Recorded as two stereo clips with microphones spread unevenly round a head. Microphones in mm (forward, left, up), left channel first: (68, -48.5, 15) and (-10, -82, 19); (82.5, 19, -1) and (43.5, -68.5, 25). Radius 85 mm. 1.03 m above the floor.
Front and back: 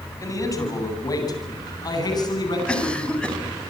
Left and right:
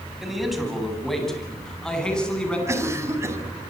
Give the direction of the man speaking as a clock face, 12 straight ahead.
1 o'clock.